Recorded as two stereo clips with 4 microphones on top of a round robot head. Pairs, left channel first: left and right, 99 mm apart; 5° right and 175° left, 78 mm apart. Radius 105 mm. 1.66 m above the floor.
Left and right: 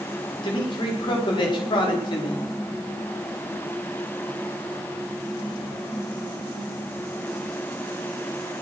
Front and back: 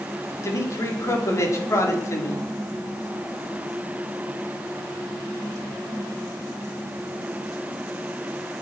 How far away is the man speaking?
About 5 m.